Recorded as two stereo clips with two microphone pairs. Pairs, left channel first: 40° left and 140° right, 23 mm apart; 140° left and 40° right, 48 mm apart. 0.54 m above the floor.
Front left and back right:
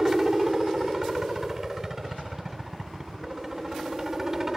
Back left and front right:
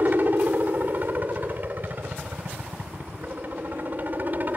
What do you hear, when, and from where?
0.0 s a helicopter: 70° right